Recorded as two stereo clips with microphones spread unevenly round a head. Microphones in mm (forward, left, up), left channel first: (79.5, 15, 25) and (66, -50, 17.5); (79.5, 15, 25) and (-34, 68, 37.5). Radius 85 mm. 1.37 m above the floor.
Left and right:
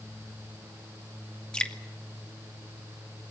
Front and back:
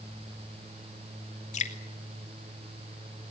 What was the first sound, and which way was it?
Dripping, straight ahead.